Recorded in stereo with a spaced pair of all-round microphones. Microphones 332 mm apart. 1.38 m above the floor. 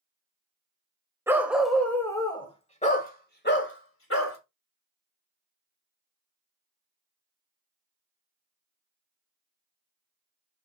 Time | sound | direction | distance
1.3 | a dog barking | 10° right (ahead or behind) | 1.6 m